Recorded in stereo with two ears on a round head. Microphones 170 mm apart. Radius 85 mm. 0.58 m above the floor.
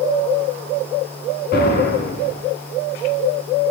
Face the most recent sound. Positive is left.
turn(degrees=55)  # may be behind; listen again after turning